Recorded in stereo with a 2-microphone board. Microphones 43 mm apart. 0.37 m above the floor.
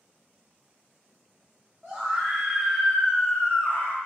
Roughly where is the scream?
Centre.